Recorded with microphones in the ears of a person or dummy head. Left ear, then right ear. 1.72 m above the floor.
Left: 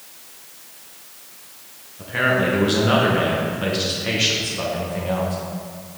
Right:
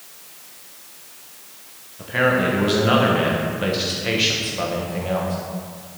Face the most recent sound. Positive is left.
turn(degrees=-10)  # may be behind; listen again after turning